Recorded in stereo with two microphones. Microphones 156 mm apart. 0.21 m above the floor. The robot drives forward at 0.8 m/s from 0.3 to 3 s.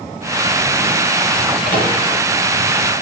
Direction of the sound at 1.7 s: 65° left (ahead or behind).